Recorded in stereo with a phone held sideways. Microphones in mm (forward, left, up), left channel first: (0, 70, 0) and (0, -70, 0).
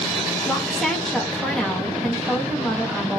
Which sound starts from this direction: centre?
A woman speaking, at 0.4 s.